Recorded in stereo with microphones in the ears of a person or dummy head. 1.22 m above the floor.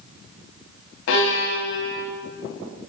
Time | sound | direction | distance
1.1 | a violin | 70° left (ahead or behind) | 4.5 m